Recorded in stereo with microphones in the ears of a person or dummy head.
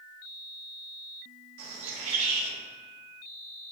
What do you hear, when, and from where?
1.6 s a bird: 80° right, 2.5 m